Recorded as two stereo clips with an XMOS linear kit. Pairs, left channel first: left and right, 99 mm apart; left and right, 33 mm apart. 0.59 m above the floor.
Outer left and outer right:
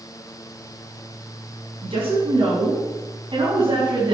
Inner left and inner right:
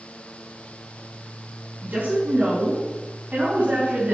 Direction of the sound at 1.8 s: 65° right (ahead or behind).